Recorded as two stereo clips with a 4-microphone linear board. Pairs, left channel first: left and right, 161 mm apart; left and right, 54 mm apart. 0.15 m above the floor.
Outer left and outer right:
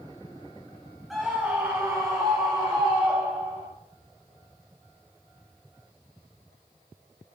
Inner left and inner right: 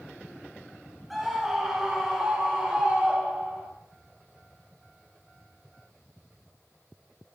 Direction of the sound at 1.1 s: Centre (ahead or behind).